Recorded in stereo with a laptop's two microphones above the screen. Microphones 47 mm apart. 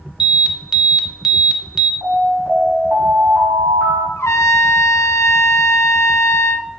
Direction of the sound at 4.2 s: 90° left.